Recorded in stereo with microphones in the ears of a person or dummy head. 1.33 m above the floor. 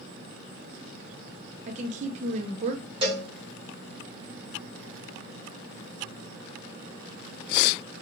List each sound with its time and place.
1.7 s a woman speaking: 40° right (ahead or behind), 0.8 m
3.0 s a cowbell: 25° right (ahead or behind), 0.9 m